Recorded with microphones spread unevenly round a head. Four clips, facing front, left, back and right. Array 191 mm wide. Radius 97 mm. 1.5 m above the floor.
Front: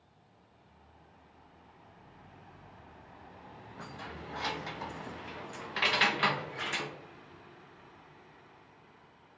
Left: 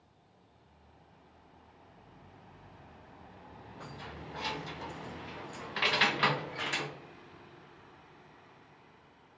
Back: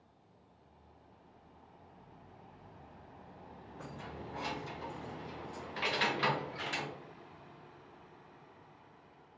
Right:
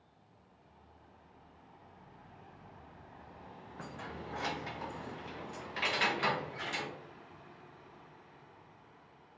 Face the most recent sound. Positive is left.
turn(degrees=90)